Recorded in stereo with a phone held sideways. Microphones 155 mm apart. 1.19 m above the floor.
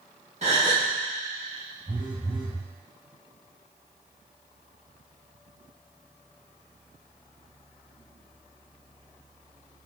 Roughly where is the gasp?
Right.